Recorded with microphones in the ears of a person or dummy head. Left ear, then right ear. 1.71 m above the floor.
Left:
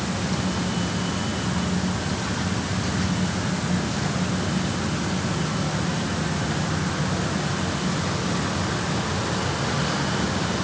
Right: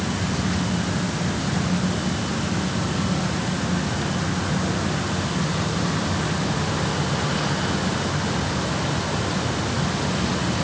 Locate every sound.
Only background noise.